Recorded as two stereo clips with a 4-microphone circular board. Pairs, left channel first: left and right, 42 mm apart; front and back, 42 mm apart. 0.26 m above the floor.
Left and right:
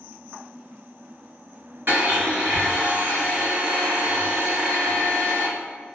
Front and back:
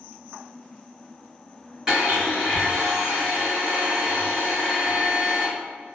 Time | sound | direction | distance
1.9 | a blender | 115° right | 1.8 m